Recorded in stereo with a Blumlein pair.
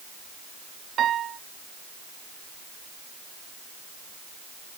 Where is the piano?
25° right.